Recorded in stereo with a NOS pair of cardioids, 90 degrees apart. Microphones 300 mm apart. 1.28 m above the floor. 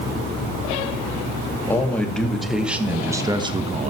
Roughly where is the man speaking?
Ahead.